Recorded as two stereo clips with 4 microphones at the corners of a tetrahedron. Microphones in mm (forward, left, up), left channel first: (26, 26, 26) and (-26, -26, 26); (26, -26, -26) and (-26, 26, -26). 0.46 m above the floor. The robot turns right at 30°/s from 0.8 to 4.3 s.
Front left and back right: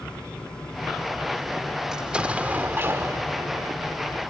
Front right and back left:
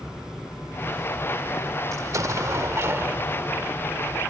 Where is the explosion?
145° left; by 3.7 s 160° right.